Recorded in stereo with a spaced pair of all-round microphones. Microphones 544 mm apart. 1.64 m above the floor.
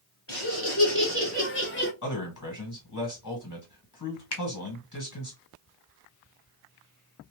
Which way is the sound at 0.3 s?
25° left (ahead or behind).